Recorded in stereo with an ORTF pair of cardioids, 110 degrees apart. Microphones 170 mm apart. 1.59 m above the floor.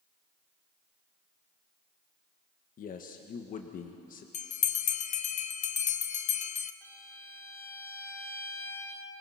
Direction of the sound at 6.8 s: 15° left.